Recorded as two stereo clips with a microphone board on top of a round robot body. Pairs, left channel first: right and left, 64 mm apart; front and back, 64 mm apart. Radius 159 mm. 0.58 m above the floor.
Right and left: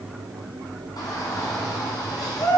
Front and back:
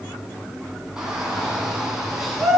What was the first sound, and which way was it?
A shout, 100° right.